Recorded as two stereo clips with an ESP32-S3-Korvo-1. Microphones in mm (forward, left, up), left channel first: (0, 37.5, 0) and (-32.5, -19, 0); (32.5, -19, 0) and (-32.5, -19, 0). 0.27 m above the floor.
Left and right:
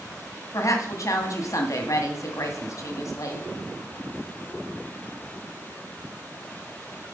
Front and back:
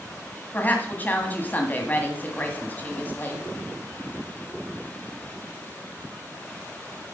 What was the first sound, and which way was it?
A woman speaking, 55° left.